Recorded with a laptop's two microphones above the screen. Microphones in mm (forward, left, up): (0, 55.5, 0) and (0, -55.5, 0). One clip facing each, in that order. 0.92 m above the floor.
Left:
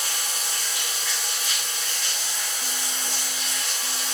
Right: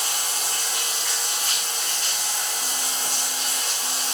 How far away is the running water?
About 3.5 m.